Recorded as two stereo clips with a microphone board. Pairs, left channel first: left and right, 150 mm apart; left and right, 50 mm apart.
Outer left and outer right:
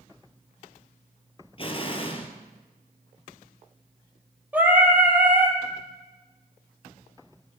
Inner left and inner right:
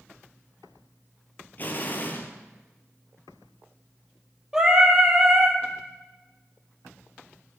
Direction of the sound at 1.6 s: 40° left (ahead or behind).